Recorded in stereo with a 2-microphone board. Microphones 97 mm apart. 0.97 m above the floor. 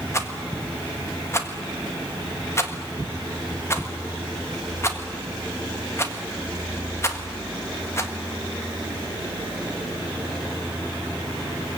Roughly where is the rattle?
Left.